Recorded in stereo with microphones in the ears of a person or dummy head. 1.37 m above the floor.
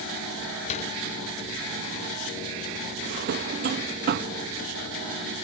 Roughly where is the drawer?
Right.